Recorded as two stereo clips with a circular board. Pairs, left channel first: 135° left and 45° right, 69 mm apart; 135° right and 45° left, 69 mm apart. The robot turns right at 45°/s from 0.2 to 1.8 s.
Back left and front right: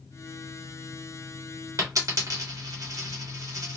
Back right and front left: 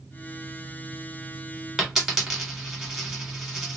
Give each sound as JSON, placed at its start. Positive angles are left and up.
{"t": 1.8, "sound": "a dropped coin", "azimuth_deg": -40, "distance_m": 1.5}